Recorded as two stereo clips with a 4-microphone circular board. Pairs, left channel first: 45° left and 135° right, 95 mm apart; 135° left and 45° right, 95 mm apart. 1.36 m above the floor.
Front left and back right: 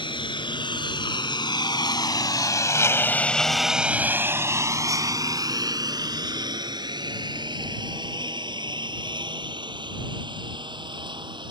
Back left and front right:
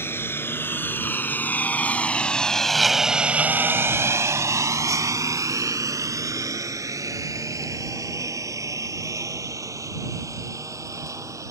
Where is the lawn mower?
70° left; by 11.5 s 100° right.